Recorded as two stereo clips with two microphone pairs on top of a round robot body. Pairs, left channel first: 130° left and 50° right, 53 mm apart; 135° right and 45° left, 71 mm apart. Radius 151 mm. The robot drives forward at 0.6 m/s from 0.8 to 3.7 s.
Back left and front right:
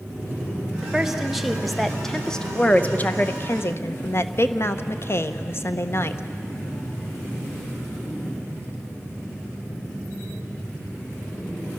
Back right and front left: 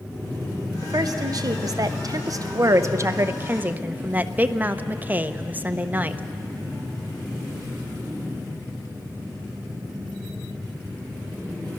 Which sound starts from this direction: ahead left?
A woman speaking, at 0.8 s.